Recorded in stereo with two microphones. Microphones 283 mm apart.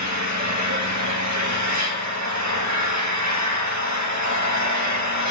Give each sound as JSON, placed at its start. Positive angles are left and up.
{"t": 0.0, "sound": "an engine running", "side_deg": -85, "distance_m": 1.6}